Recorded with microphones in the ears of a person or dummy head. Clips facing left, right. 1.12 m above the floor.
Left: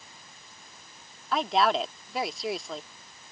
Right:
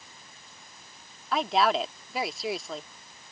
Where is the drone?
I don't hear a drone.